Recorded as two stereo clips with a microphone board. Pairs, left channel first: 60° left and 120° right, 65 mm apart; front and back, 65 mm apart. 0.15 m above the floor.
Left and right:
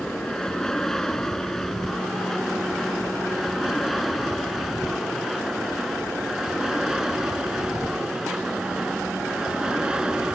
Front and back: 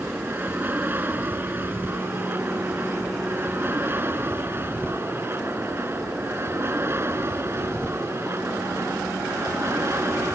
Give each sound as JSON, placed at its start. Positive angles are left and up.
{"t": 0.0, "sound": "an aircraft", "azimuth_deg": 135}